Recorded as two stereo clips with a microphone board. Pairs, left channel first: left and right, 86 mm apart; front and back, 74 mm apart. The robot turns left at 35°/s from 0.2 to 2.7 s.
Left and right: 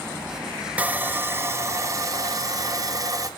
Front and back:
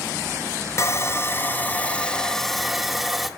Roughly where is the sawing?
Ahead right.